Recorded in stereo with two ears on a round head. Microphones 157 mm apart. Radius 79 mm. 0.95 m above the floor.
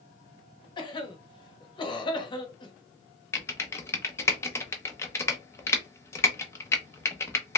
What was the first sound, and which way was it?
A cough, 25° left (ahead or behind).